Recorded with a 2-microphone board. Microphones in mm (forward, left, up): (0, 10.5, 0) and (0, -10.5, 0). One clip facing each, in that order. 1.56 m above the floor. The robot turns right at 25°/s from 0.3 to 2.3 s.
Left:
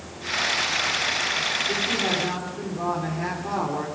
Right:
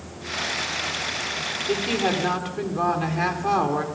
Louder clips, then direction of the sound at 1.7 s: Even; 80° right.